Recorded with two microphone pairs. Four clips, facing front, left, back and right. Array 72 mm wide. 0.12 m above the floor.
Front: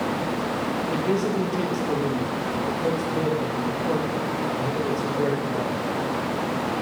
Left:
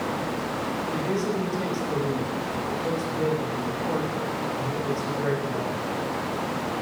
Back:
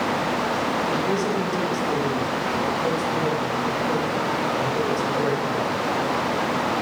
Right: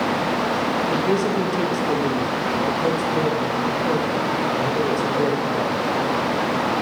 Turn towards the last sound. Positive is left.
turn(degrees=-75)